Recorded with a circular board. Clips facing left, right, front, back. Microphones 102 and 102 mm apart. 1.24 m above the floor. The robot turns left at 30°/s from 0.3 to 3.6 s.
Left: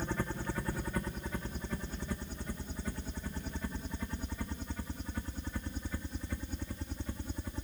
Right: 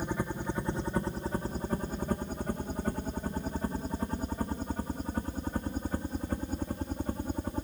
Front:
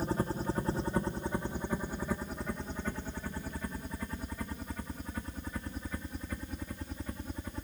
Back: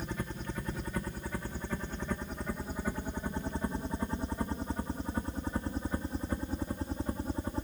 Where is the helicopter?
25° right; by 7.6 s 125° right.